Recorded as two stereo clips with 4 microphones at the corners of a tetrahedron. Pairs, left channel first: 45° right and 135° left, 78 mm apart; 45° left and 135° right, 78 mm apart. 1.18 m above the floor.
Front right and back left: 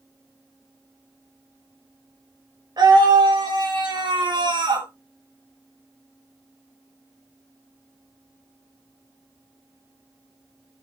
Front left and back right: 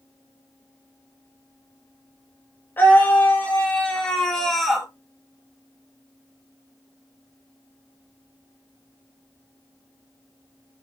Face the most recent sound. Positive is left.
turn(degrees=140)